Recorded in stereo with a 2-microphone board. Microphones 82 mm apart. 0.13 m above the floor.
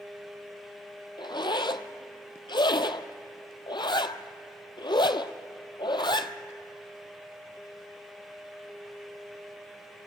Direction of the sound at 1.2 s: 75° left (ahead or behind).